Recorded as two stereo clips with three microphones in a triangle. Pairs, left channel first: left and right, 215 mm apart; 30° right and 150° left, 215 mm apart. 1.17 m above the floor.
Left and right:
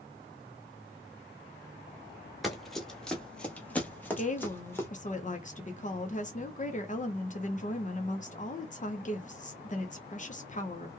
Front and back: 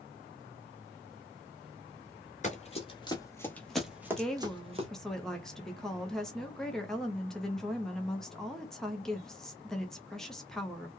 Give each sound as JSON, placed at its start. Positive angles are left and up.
{"t": 2.4, "sound": "running footsteps", "azimuth_deg": 0, "distance_m": 1.4}
{"t": 4.1, "sound": "a woman speaking", "azimuth_deg": 55, "distance_m": 0.7}